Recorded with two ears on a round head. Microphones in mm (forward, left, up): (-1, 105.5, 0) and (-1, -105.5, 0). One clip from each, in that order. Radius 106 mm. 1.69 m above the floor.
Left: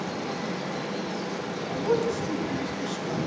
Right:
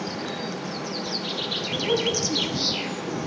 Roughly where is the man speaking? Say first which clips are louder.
Even; left.